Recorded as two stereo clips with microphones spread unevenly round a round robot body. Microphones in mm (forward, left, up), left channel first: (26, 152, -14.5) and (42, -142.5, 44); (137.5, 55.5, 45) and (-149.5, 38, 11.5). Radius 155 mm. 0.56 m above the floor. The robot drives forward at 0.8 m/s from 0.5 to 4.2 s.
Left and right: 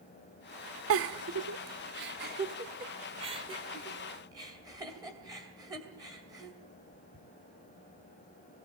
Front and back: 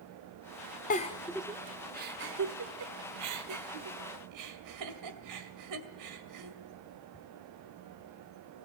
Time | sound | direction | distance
0.9 | a giggle | 55° right | 0.9 m